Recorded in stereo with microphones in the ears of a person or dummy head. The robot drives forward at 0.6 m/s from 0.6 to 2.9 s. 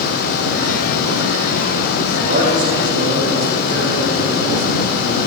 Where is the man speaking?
50° right (ahead or behind), 7.5 m.